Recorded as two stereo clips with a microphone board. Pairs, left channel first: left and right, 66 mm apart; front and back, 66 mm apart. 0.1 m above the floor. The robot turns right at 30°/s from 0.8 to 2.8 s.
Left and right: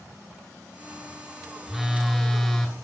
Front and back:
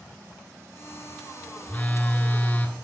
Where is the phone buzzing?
15° right, 0.6 m; by 2.7 s 15° left, 0.6 m.